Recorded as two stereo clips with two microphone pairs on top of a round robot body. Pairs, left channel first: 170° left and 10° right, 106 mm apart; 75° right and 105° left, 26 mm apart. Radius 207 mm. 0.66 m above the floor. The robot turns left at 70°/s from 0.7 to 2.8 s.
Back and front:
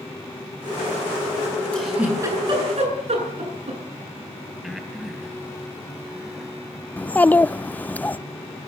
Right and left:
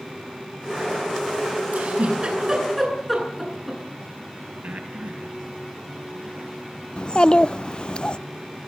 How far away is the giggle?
About 10 m.